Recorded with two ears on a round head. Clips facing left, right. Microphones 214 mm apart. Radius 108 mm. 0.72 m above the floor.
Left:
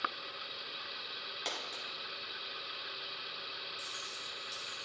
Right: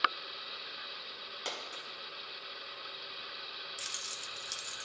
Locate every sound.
1.4 s a dropped coin: centre (ahead or behind), 1.1 m
3.8 s keys jangling: 75° right (ahead or behind), 0.5 m